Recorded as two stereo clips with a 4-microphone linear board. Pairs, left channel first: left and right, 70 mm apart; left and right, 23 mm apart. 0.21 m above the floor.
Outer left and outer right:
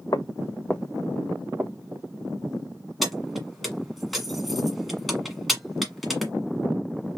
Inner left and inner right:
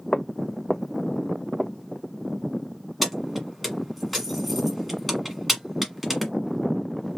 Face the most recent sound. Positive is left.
turn(degrees=0)  # may be behind; listen again after turning